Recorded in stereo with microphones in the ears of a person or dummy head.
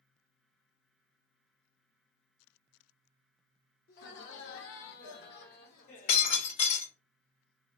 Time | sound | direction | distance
3.9 | laughter | 55° left (ahead or behind) | 0.7 m
6.1 | breaking glass | 50° left (ahead or behind) | 2 m